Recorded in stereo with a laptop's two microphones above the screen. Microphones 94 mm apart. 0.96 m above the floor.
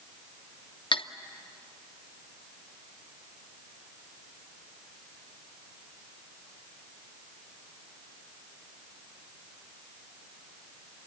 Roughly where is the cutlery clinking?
Left.